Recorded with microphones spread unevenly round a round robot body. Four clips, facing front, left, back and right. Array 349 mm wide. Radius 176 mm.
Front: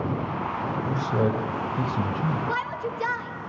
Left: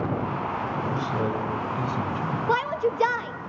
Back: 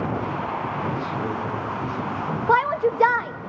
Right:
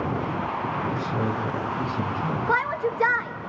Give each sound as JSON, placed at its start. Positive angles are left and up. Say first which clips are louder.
{"t": 0.9, "sound": "a man speaking", "louder": "even, front 2 dB", "azimuth_deg": 0, "distance_m": 3.5}
{"t": 2.5, "sound": "a shout", "louder": "left 1 dB, back 10 dB", "azimuth_deg": 165, "distance_m": 1.2}